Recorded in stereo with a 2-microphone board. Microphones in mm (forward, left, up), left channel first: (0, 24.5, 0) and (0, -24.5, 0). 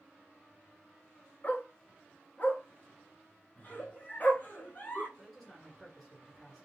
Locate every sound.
1.4 s a dog barking: 40° left (ahead or behind), 0.7 m
3.6 s a giggle: 35° left (ahead or behind), 0.9 m
5.2 s a man speaking: 5° left (ahead or behind), 1.6 m